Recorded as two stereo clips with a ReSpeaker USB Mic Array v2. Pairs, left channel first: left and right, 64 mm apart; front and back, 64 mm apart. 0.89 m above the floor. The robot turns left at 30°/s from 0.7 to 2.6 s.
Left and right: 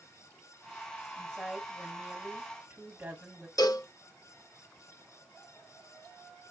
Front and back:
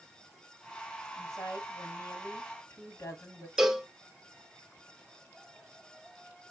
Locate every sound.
1.2 s a woman speaking: 15° left, 2 m; by 3.5 s 25° right, 2 m
3.6 s a cowbell: 100° left, 0.6 m